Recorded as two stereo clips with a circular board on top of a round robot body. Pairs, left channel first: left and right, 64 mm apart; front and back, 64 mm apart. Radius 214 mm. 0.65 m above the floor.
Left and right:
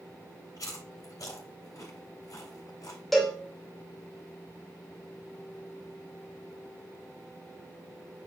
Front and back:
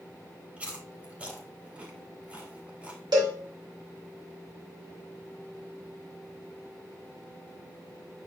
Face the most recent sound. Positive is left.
turn(degrees=180)